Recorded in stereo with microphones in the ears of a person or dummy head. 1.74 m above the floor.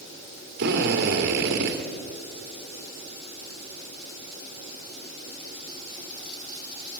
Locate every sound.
0.6 s a drill: 60° right (ahead or behind), 2.5 m